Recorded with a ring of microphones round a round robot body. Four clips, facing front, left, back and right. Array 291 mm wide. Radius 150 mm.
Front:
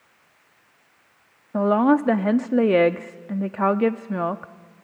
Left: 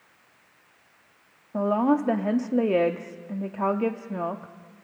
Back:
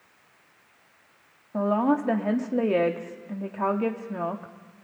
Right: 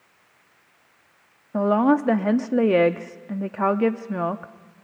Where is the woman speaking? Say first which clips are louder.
Right 4 dB, front 5 dB; 35° right, 0.9 m.